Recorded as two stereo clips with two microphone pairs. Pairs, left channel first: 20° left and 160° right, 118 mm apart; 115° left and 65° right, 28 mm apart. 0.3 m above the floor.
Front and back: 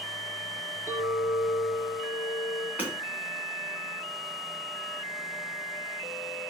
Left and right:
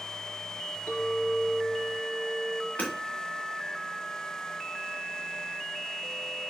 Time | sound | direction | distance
0.9 | a clink | 125° left | 2.5 m
2.8 | hammering | 125° left | 2.5 m